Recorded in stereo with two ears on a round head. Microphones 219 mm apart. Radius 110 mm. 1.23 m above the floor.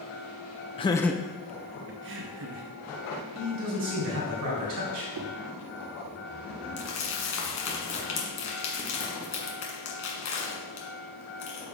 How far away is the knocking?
About 0.7 m.